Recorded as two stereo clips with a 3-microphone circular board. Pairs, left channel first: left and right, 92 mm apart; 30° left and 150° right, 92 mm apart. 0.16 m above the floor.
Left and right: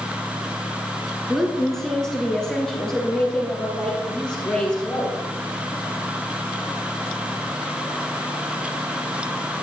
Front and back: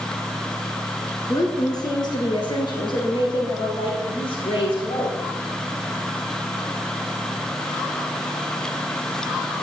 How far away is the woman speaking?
About 1.5 m.